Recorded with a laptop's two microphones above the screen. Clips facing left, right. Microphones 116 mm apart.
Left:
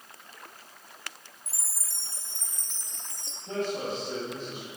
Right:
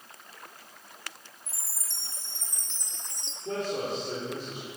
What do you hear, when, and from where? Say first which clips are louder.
1.5 s a chime: even; 5° left (ahead or behind), 0.9 m
3.5 s a man speaking: even; 70° right (ahead or behind), 3.5 m